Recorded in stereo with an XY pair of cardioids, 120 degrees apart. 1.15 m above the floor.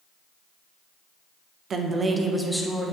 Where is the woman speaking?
45° right, 0.8 m; by 2.9 s 15° left, 1.1 m.